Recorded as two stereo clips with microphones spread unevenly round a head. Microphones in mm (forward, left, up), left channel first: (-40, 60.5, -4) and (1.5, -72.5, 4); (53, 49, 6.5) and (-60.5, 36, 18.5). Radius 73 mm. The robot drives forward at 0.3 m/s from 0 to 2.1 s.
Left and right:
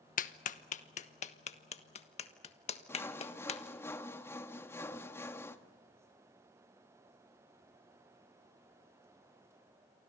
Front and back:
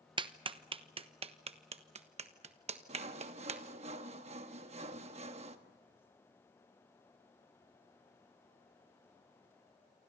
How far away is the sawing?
About 1.3 m.